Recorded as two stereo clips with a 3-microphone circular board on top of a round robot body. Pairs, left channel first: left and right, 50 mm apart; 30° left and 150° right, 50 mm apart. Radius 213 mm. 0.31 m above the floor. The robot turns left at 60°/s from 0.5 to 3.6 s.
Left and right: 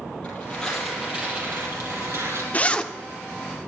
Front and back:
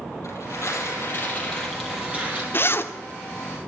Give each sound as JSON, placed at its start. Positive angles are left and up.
{"t": 0.2, "sound": "tearing paper", "azimuth_deg": 20, "distance_m": 6.5}
{"t": 2.5, "sound": "a zipper", "azimuth_deg": 45, "distance_m": 1.5}